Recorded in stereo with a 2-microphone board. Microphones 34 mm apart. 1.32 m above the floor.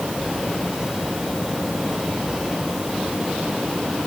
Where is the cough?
I don't hear a cough.